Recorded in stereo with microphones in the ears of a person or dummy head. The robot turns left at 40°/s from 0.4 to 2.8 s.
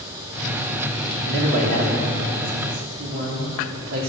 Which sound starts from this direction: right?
A man speaking, at 1.2 s.